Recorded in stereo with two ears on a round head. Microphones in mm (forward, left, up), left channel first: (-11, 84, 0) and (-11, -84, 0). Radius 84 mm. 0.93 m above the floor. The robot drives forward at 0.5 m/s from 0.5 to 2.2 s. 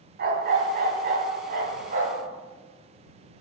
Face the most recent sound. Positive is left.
turn(degrees=-45)  # may be behind; listen again after turning